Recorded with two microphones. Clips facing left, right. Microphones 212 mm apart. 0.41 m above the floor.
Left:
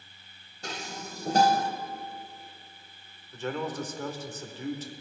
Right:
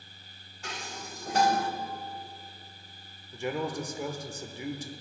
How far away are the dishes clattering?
About 1.3 m.